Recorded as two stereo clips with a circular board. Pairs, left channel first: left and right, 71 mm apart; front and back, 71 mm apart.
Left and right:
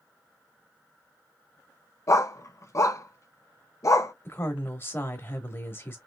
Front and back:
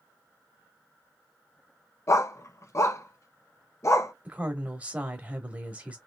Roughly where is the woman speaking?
Behind left.